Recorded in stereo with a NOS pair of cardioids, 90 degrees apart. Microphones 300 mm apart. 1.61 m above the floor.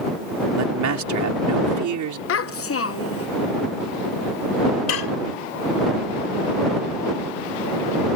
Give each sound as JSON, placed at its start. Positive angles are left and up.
{"t": 0.6, "sound": "a man speaking", "azimuth_deg": -65}
{"t": 2.3, "sound": "a child speaking", "azimuth_deg": 50}
{"t": 4.9, "sound": "dishes clattering", "azimuth_deg": 55}